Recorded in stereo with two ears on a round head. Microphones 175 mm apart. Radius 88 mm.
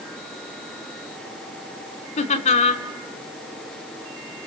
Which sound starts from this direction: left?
Laughter, at 2.2 s.